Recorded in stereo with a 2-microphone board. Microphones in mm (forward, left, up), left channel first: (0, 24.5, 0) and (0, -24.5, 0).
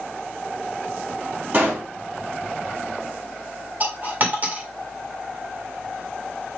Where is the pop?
35° right (ahead or behind), 3 m.